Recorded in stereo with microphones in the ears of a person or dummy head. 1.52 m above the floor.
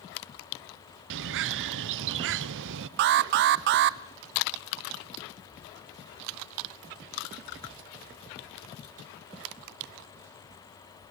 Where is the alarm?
50° right (ahead or behind), 0.7 m.